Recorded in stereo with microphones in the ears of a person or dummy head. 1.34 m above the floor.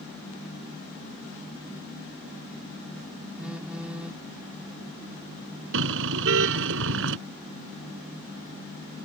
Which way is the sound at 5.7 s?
70° right (ahead or behind).